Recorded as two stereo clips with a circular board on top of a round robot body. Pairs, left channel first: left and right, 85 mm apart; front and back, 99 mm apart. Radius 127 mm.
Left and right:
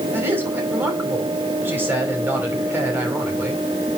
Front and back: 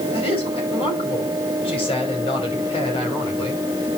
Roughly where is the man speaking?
Ahead right.